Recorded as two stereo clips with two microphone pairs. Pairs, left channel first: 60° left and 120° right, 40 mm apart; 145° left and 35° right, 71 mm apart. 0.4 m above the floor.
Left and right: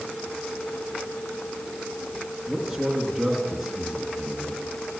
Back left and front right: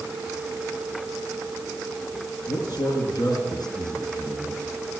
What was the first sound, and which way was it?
A man speaking, 160° left.